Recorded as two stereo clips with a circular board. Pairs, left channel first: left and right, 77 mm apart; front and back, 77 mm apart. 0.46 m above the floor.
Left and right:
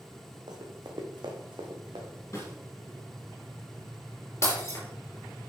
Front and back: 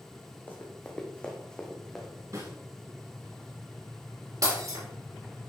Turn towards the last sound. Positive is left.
turn(degrees=140)